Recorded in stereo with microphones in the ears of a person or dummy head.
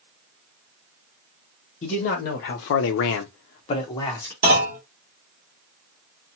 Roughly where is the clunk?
Right.